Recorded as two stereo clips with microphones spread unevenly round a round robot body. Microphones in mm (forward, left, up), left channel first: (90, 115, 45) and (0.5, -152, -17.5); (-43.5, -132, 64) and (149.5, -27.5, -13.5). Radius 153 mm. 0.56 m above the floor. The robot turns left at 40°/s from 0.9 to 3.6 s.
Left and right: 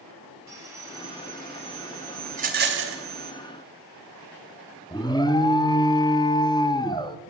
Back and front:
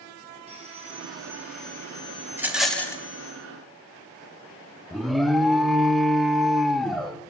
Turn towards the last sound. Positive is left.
turn(degrees=-10)